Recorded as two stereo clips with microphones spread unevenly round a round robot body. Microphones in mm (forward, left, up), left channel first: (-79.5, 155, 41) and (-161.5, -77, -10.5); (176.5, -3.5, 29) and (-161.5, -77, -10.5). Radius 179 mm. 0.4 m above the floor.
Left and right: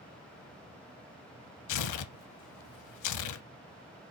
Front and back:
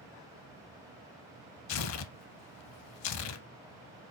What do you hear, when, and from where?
1.7 s tearing paper: 65° left, 0.6 m